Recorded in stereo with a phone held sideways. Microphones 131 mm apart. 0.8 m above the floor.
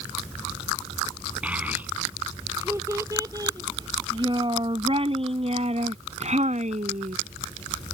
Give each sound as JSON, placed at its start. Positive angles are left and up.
{"t": 1.4, "sound": "a child speaking", "side_deg": -10}